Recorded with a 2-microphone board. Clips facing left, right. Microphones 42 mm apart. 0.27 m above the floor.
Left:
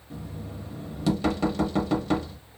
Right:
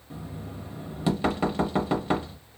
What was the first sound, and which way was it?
Knocking, 20° right (ahead or behind).